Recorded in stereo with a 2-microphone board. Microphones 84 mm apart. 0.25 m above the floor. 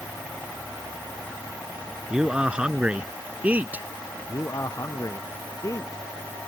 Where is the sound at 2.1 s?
10° right (ahead or behind); by 3.9 s 20° right (ahead or behind).